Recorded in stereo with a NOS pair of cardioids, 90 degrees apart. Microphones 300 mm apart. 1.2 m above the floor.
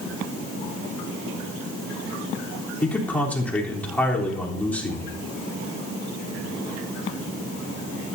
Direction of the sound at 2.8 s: 5° left.